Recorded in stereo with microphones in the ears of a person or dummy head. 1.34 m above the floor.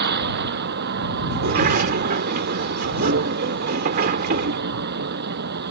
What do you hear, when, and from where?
0.0 s a vehicle: 60° right (ahead or behind)
1.3 s a sliding door: 50° right (ahead or behind)